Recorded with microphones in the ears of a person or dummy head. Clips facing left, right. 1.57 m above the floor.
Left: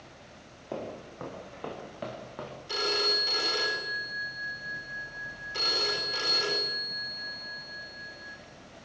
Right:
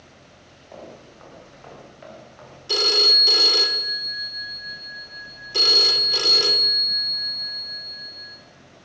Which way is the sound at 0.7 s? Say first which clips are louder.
Left 4 dB; 65° left (ahead or behind).